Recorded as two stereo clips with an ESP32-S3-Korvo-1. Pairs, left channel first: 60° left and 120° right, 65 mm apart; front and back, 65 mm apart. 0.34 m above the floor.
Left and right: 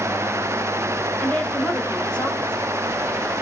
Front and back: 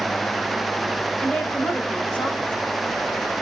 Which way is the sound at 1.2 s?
25° left.